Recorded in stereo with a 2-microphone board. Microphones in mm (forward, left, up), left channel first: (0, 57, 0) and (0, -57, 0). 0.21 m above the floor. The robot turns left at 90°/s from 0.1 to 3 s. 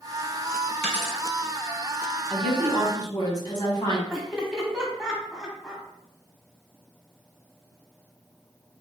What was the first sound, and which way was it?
A dropped coin, 5° left (ahead or behind).